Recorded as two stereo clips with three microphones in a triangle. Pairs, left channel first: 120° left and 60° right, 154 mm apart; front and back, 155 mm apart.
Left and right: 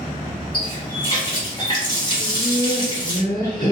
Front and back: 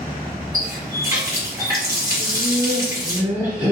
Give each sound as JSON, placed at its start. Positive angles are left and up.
{"t": 0.5, "sound": "a running tap", "azimuth_deg": 135, "distance_m": 0.9}
{"t": 2.2, "sound": "laughter", "azimuth_deg": 145, "distance_m": 1.3}